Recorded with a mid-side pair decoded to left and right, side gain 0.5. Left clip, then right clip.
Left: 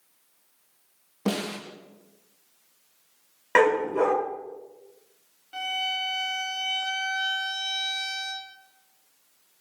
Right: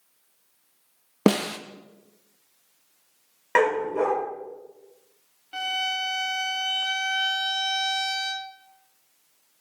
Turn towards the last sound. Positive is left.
turn(degrees=-35)